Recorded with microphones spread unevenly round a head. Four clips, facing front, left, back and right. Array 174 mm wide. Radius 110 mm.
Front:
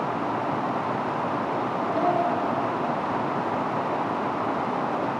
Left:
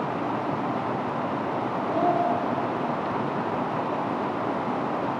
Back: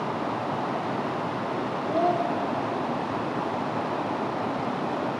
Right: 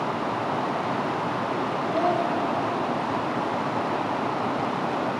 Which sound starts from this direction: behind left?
A child speaking, at 1.9 s.